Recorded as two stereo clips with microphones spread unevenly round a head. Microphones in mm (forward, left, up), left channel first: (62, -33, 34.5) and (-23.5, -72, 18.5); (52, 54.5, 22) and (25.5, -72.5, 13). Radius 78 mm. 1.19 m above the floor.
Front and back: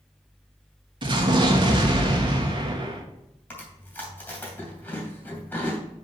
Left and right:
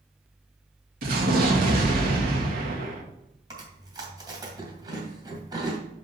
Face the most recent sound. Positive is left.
turn(degrees=-40)